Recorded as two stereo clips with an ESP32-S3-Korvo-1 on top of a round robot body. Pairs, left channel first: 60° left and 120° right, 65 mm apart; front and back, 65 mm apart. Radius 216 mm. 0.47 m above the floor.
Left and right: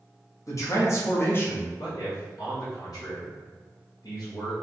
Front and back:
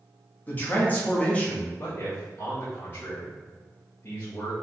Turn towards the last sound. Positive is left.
turn(degrees=55)